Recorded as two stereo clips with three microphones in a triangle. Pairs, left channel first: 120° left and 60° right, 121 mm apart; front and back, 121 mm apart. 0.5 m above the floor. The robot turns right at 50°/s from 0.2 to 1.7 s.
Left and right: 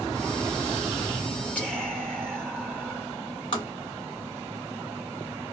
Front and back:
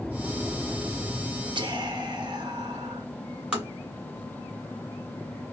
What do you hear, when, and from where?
1.6 s whispering: 170° right, 1.0 m; by 3.1 s 165° right, 1.0 m
3.5 s tapping: 100° left, 1.7 m